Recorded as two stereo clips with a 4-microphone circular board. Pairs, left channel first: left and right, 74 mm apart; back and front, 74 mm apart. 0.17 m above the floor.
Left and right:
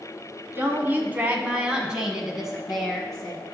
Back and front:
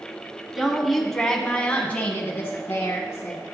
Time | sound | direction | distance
0.6 | a woman speaking | 80° right | 1.3 m